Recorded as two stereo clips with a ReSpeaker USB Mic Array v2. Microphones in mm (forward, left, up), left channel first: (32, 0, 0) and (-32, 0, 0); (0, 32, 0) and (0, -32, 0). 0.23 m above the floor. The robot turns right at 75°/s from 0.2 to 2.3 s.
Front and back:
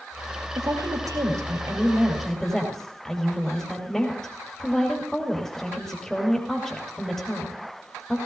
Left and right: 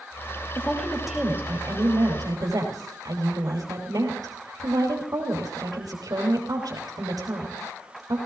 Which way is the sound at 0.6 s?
145° left.